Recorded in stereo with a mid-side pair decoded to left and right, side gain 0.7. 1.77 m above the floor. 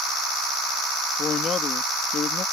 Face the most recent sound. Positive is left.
turn(degrees=35)